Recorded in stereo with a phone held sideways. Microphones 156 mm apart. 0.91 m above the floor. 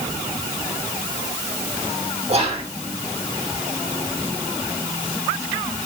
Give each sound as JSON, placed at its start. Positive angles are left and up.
{"t": 2.3, "sound": "whispering", "side_deg": -40, "distance_m": 1.7}